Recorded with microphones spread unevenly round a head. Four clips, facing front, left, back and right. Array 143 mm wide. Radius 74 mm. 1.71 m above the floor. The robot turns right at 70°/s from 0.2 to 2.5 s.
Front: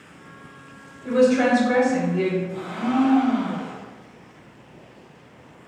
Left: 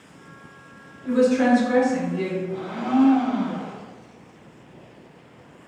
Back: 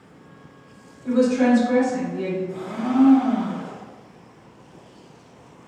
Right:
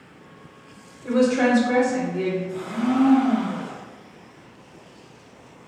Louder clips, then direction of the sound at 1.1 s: Left 1 dB, even; 75° right.